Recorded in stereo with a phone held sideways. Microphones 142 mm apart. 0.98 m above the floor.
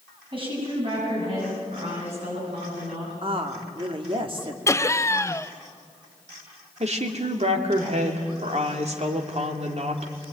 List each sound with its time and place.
0.3 s a woman speaking: 35° right (ahead or behind), 7.5 m; by 3.1 s 50° right (ahead or behind), 10.5 m
3.2 s a woman speaking: 40° right (ahead or behind), 2.5 m
4.7 s laughter: 20° left (ahead or behind), 0.7 m
6.8 s a woman speaking: 50° right (ahead or behind), 2.5 m